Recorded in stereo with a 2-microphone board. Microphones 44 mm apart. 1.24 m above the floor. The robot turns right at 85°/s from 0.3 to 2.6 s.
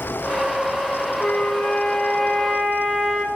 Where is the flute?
60° left, 0.8 m; by 3.2 s 175° left, 0.8 m.